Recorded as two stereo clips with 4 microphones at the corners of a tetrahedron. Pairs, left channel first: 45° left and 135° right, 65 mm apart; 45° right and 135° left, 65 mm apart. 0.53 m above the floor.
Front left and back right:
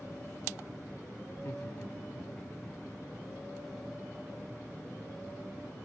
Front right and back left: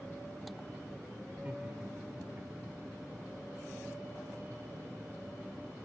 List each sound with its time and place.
1.3 s laughter: 70° left, 1.5 m; by 2.8 s 100° left, 2 m